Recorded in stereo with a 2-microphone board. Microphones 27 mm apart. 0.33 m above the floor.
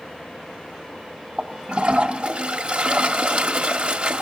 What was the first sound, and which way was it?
A toilet flushing, 50° right (ahead or behind).